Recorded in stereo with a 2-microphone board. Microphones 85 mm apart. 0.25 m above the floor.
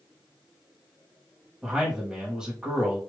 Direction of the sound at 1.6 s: 10° right (ahead or behind).